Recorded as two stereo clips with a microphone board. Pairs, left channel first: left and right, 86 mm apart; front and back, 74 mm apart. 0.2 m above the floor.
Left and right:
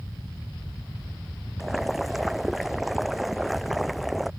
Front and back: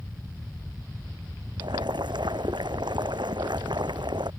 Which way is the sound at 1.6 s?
Straight behind.